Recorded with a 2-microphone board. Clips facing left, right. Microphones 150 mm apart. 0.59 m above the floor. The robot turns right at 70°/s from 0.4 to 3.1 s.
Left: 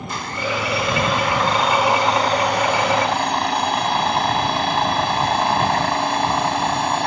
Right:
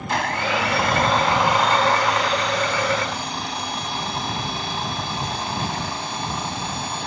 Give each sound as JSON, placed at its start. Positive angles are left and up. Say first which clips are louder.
{"t": 0.1, "sound": "a blender", "louder": "right 3 dB", "azimuth_deg": -90}